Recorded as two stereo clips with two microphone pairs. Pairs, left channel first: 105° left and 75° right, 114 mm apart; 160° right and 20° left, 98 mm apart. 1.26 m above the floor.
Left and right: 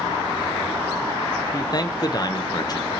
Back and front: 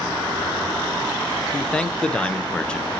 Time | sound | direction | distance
1.5 | a man speaking | 125° left | 0.6 m